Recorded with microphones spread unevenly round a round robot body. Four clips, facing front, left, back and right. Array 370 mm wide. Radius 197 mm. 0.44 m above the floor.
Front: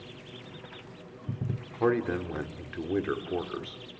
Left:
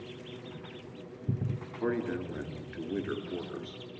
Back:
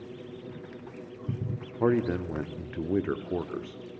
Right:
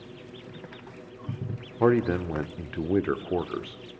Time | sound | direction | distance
1.8 | a man speaking | 75° right | 1.1 m